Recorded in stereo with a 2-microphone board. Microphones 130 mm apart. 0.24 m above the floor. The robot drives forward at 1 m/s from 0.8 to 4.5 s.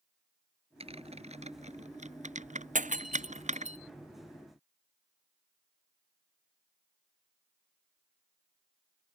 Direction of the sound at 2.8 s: 80° right.